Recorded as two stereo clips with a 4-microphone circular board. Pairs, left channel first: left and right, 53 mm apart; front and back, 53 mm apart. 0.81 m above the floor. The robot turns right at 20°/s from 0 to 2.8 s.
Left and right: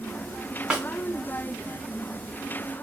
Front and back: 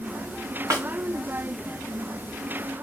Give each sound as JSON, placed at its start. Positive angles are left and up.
{"t": 0.7, "sound": "a snare drum", "azimuth_deg": -160, "distance_m": 2.5}